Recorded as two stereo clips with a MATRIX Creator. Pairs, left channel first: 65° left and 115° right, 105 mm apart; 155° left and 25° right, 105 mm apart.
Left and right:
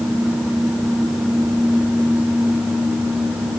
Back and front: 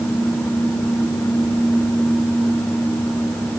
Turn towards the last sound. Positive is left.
No sound to turn to.